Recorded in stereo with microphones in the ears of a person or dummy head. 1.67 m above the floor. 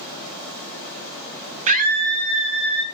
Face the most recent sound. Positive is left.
turn(degrees=-60)  # may be behind; listen again after turning